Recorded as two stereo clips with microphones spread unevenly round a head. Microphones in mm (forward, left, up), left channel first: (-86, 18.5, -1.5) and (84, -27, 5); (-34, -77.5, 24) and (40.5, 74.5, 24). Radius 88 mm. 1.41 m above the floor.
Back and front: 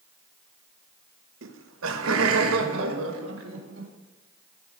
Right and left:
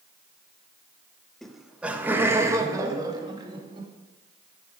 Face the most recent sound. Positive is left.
turn(degrees=0)